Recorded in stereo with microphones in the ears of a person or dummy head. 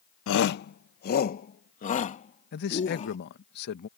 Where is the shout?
65° left (ahead or behind); by 3.2 s 40° left (ahead or behind).